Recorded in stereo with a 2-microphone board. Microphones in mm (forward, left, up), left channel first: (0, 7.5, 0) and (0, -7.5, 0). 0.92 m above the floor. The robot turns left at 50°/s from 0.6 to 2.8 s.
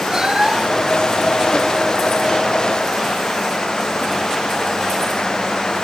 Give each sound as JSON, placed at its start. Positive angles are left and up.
{"t": 0.1, "sound": "a cat meowing", "side_deg": -45}